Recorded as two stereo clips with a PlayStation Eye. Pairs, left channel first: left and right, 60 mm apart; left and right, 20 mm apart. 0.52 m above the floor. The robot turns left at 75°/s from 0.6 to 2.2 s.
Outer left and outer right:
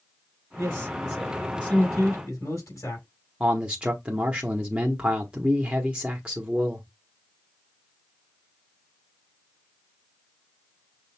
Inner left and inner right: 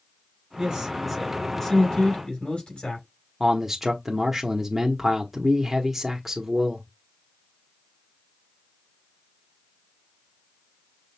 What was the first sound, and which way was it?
A man speaking, 130° right.